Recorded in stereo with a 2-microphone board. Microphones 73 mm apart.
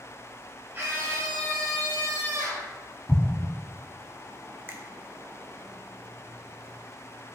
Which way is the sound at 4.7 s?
35° right (ahead or behind).